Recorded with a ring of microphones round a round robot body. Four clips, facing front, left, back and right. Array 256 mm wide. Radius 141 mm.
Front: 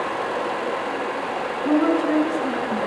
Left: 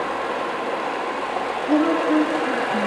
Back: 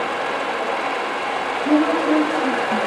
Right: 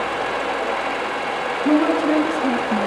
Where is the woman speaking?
90° right, 6.5 m.